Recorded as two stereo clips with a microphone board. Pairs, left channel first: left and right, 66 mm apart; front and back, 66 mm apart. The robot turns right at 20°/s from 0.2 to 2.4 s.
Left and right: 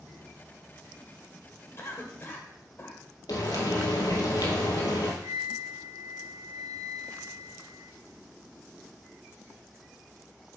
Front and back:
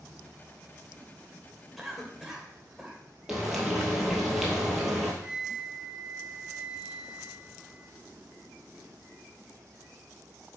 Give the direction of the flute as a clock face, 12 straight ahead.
4 o'clock.